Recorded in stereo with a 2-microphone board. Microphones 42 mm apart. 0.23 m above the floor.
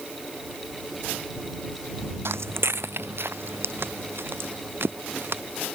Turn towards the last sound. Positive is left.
turn(degrees=-55)  # may be behind; listen again after turning